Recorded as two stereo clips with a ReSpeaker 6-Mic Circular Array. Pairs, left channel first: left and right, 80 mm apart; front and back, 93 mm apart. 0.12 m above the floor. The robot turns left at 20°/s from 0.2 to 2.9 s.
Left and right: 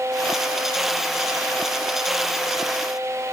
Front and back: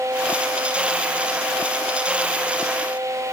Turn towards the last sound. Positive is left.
No sound to turn to.